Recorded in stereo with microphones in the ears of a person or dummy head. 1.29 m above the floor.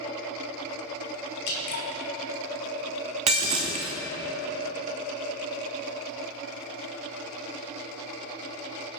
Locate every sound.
1.5 s dripping: 55° left (ahead or behind), 1.9 m
3.3 s breaking glass: 25° right (ahead or behind), 0.9 m